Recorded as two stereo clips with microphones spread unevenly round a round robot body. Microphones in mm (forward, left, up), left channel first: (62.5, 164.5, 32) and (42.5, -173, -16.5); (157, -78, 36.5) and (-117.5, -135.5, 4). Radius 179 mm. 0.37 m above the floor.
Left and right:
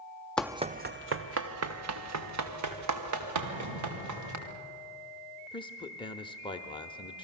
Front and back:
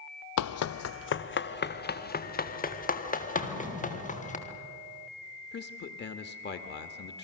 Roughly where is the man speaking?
Ahead.